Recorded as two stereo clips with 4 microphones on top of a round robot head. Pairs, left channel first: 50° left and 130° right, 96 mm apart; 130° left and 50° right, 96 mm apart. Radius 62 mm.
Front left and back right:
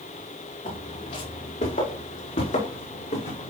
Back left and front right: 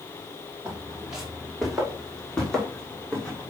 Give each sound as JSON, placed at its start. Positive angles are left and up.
{"t": 0.7, "sound": "footsteps", "azimuth_deg": 30, "distance_m": 6.0}